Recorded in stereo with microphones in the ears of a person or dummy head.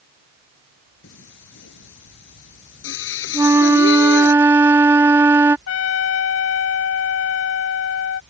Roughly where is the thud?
No thud in this recording.